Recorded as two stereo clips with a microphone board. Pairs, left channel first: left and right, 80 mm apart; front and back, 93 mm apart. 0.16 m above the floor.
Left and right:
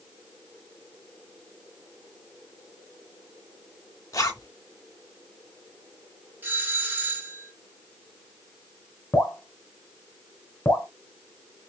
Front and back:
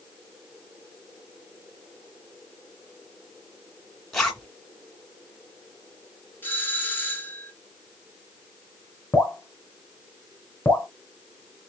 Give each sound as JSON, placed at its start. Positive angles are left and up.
{"t": 4.1, "sound": "a zipper", "azimuth_deg": 80, "distance_m": 2.0}
{"t": 6.4, "sound": "a doorbell", "azimuth_deg": -50, "distance_m": 1.6}
{"t": 9.1, "sound": "dripping", "azimuth_deg": 55, "distance_m": 2.0}